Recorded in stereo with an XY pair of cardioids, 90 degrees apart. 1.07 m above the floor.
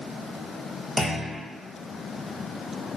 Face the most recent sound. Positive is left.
turn(degrees=35)